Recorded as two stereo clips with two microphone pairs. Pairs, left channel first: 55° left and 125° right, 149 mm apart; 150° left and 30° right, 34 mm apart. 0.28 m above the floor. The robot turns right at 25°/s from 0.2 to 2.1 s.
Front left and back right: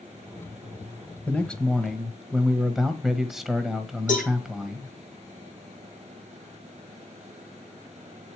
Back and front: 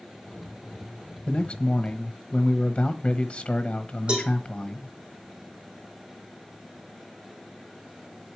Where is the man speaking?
130° left, 1.1 m; by 4.9 s 150° left, 1.1 m.